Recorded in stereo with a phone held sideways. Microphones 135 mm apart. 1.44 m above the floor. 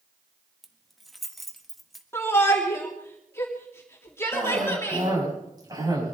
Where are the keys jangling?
Centre (ahead or behind), 1.5 m.